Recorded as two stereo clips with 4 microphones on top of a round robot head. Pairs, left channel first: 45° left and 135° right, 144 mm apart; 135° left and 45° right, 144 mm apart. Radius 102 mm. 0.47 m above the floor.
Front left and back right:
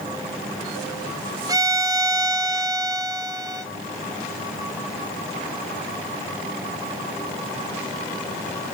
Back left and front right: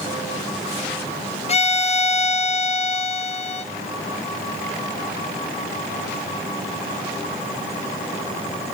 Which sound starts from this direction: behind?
A violin, at 1.5 s.